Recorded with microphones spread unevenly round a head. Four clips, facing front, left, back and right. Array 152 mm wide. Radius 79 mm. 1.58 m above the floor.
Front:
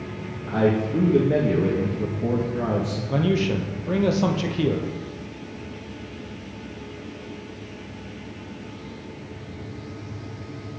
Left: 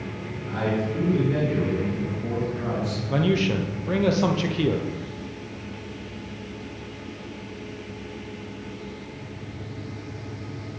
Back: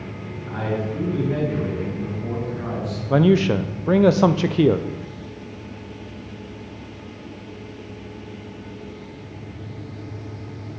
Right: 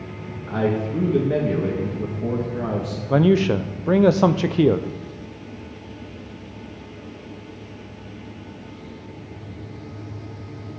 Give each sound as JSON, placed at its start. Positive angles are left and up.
{"t": 0.5, "sound": "a man speaking", "azimuth_deg": -40, "distance_m": 2.0}
{"t": 3.1, "sound": "a man speaking", "azimuth_deg": -135, "distance_m": 0.6}